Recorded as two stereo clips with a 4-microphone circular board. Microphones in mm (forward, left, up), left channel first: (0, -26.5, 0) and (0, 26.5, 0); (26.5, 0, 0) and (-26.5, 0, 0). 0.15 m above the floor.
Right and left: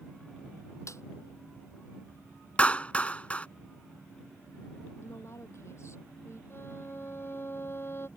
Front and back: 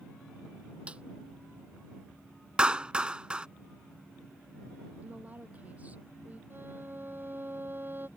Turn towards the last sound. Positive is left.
turn(degrees=-135)